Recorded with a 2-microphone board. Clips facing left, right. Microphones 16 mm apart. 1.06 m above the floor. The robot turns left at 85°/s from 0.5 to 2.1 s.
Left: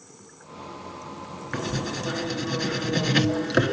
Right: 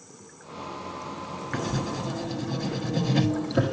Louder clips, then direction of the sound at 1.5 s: Left 1 dB; 175° left.